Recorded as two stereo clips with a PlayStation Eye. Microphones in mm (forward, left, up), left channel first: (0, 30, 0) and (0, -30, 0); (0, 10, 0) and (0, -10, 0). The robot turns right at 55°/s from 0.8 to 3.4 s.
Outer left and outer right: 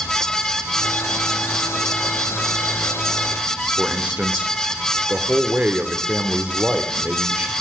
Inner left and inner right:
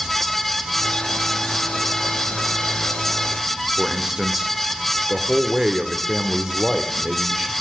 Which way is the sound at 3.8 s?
25° right (ahead or behind).